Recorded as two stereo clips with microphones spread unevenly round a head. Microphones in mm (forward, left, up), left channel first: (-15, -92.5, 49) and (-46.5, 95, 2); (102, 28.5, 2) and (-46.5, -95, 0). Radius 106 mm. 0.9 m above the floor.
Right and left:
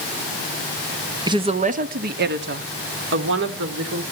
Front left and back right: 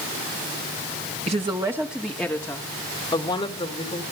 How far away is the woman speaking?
About 1.0 m.